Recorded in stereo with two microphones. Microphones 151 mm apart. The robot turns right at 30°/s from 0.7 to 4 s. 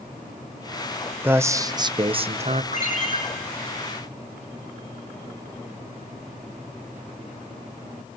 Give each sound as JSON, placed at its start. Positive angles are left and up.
{"t": 1.2, "sound": "a man speaking", "azimuth_deg": -165, "distance_m": 0.6}
{"t": 2.7, "sound": "a ringtone", "side_deg": 55, "distance_m": 6.5}